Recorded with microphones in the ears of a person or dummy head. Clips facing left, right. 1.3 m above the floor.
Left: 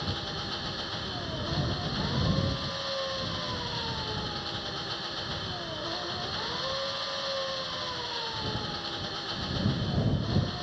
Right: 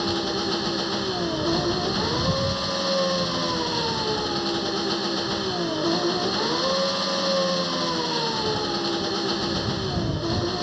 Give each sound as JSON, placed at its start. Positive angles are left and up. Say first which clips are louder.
{"t": 0.0, "sound": "an engine running", "louder": "right 12 dB", "side_deg": -60}